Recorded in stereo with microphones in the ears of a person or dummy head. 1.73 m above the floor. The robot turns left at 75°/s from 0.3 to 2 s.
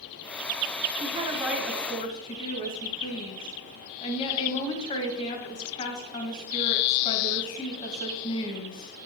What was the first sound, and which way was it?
A woman speaking, 140° right.